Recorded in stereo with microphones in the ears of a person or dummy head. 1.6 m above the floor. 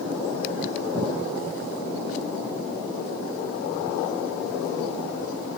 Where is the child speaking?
No child speaking in this recording.